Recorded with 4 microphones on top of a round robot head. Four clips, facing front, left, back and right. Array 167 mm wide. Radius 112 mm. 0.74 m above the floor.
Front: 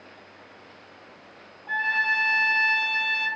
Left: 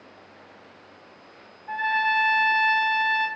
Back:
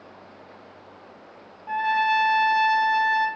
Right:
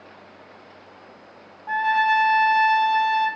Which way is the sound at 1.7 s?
120° right.